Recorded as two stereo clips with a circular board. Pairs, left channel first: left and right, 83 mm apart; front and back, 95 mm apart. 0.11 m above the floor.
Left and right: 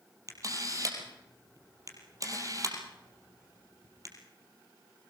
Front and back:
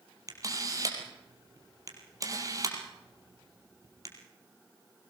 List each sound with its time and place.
0.3 s a camera shutter: 130° right, 3.5 m